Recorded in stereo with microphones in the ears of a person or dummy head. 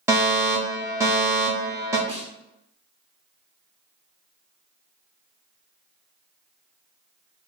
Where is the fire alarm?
15° right (ahead or behind), 1.0 m.